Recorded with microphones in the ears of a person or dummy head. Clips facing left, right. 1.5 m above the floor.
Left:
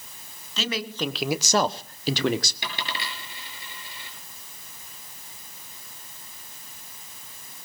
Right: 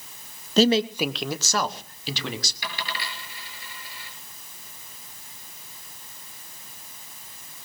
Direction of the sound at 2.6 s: 25° left (ahead or behind).